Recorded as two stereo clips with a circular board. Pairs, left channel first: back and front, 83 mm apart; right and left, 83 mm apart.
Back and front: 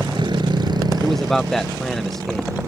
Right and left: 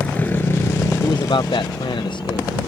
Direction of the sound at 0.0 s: 15° right.